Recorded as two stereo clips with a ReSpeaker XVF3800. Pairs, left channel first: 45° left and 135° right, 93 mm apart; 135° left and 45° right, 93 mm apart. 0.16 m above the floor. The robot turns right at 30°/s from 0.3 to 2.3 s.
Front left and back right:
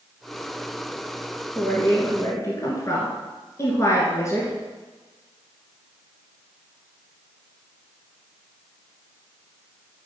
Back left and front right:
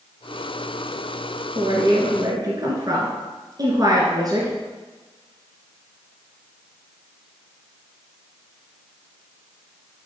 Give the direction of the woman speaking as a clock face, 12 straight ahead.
1 o'clock.